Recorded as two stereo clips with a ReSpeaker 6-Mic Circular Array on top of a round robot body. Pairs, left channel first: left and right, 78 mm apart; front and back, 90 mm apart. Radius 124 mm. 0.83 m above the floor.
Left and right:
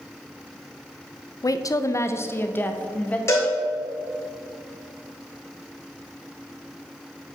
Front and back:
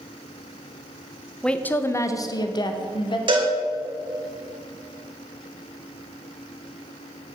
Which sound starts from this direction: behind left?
A cowbell, at 3.3 s.